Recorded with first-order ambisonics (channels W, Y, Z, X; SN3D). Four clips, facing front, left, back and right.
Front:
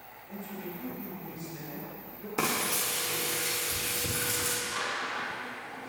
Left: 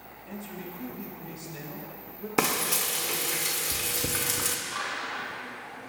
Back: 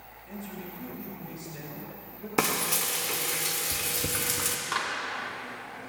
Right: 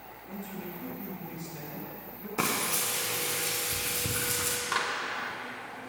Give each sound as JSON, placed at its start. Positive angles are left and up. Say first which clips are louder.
{"t": 0.3, "sound": "a man speaking", "louder": "left 1 dB, even", "azimuth_deg": 110, "distance_m": 4.0}
{"t": 2.4, "sound": "frying", "louder": "left 3 dB, back 2 dB", "azimuth_deg": 125, "distance_m": 1.7}
{"t": 4.7, "sound": "a clap", "louder": "right 3 dB, back 3 dB", "azimuth_deg": -135, "distance_m": 3.0}